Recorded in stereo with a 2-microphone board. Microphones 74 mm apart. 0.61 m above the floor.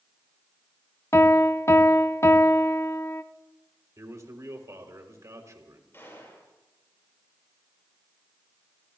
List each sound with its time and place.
1.1 s a piano: 40° left (ahead or behind), 0.8 m
4.0 s a man speaking: 50° right (ahead or behind), 3 m
5.9 s a gunshot: 35° left (ahead or behind), 7.5 m